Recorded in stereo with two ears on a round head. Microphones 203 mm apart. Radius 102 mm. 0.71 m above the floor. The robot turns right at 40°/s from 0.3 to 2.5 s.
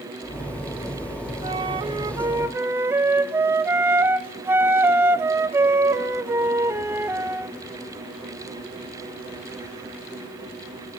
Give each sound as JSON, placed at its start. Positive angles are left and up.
{"t": 1.4, "sound": "a flute", "side_deg": -25, "distance_m": 0.5}